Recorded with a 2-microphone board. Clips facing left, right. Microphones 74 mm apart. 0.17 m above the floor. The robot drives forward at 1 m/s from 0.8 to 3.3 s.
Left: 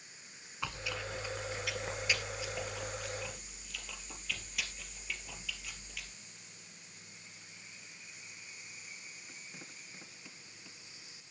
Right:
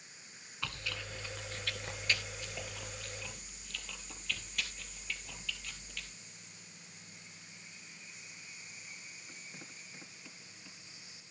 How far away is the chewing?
About 1.3 m.